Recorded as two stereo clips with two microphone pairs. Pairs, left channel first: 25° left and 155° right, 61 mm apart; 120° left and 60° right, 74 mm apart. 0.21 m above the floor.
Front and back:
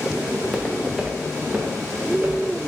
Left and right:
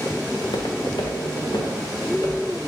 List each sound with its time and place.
0.3 s footsteps: 110° left, 1.4 m; by 2.5 s 150° left, 2.5 m